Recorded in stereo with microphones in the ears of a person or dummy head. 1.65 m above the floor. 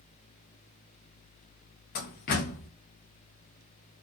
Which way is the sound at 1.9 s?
45° left (ahead or behind).